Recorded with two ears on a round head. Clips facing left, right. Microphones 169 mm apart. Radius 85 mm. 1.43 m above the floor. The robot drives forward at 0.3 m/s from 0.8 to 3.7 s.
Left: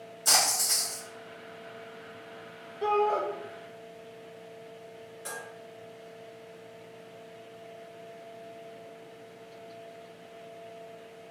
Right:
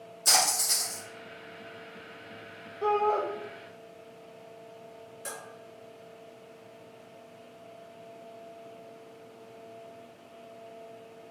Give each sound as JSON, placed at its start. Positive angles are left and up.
{"t": 0.2, "sound": "a splash", "side_deg": -25, "distance_m": 1.8}
{"t": 2.8, "sound": "a shout", "side_deg": 10, "distance_m": 0.6}
{"t": 5.2, "sound": "dishes clattering", "side_deg": -35, "distance_m": 1.9}